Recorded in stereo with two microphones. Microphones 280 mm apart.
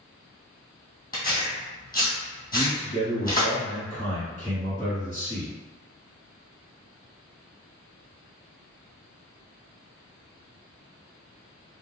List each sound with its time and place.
1.1 s tearing paper: 30° left (ahead or behind), 1.6 m
2.5 s a man speaking: 25° left (ahead or behind), 1.5 m